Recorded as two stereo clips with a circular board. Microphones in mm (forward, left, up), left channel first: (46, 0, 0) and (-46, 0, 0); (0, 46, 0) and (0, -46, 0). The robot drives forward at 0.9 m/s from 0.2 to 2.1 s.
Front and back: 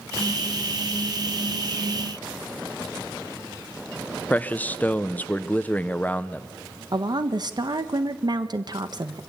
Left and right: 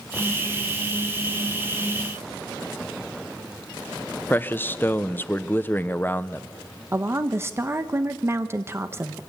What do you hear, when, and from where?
4.3 s a man speaking: 50° left, 0.7 m
6.9 s a woman speaking: 150° right, 1.2 m